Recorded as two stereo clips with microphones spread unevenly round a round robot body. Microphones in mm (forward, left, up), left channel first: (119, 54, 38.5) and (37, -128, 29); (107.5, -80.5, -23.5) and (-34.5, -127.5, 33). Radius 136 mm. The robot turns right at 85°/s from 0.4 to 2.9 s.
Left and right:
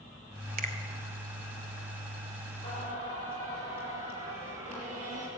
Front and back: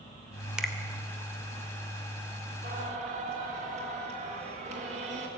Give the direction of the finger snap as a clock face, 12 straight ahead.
2 o'clock.